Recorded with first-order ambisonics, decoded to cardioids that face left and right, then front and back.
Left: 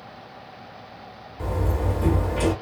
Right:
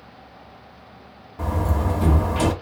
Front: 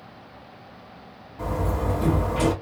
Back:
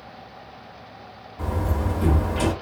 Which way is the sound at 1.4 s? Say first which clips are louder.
Right 2 dB, front 1 dB; 100° right.